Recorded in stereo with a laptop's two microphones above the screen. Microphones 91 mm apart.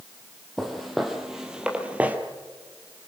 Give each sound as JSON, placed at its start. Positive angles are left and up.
{"t": 0.6, "sound": "footsteps", "side_deg": 0, "distance_m": 2.5}